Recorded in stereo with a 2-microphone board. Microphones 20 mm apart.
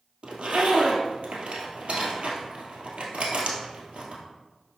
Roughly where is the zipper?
Right.